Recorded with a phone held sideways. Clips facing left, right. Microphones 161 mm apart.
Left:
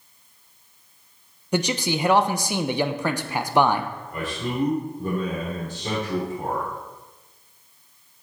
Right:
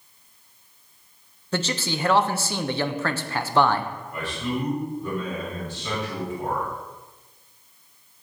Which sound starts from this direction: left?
A man speaking, at 4.1 s.